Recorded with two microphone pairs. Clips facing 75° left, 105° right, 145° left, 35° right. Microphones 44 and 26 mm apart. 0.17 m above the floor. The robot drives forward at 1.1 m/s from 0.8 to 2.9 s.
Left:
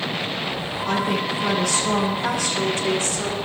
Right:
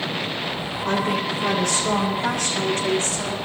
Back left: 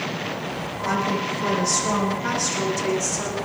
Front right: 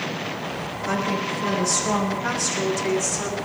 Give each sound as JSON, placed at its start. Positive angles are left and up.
{"t": 0.8, "sound": "a woman speaking", "azimuth_deg": -145, "distance_m": 9.5}